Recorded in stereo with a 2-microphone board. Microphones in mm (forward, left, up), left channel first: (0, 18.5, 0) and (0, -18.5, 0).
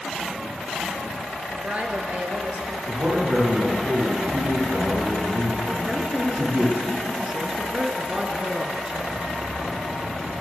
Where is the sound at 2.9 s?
55° right (ahead or behind), 6 m.